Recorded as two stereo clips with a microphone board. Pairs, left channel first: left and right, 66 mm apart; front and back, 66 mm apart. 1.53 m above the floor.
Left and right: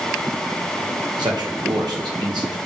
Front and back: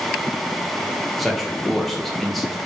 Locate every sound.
1.2 s a man speaking: 90° right, 2.0 m